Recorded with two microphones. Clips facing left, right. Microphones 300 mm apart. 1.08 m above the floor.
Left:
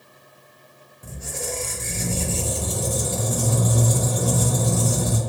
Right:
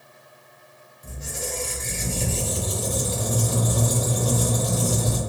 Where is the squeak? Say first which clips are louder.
Left 2 dB; 55° left (ahead or behind), 0.7 m.